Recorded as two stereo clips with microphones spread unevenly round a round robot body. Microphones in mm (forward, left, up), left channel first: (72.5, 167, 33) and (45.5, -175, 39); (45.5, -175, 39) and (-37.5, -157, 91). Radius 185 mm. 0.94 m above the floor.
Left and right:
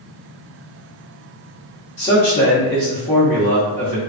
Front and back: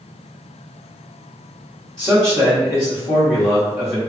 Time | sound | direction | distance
2.0 | a man speaking | 20° left | 1.0 m